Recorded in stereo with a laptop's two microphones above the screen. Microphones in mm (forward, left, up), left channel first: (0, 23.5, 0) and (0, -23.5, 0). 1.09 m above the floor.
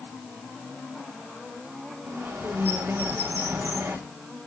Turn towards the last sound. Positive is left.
turn(degrees=-65)  # may be behind; listen again after turning